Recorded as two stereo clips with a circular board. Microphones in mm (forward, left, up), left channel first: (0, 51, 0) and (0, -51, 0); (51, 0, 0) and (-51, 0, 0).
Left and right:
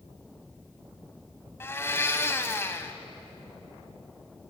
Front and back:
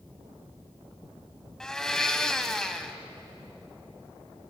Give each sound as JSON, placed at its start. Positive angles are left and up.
{"t": 1.6, "sound": "a blender", "azimuth_deg": 75, "distance_m": 1.4}